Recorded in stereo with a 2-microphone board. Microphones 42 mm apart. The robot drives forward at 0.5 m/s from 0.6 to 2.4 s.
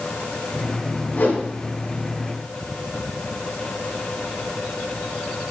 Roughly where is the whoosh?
Left.